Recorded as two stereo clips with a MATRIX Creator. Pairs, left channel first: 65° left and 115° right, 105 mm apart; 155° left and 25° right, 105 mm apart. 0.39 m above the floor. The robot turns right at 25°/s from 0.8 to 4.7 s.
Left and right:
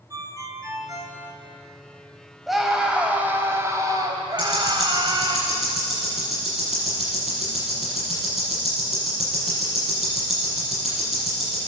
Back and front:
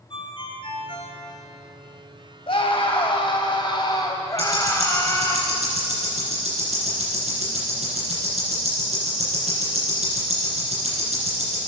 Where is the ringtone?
170° right, 1.9 m; by 1.2 s 155° right, 1.9 m.